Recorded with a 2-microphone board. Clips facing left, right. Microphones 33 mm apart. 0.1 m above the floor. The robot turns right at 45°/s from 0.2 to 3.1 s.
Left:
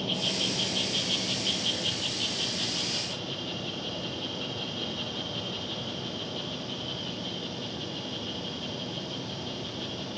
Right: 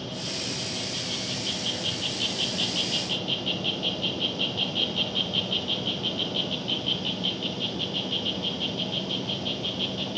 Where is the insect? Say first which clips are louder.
Left 4 dB; 110° left, 2.5 m; by 10.2 s 120° right, 2.5 m.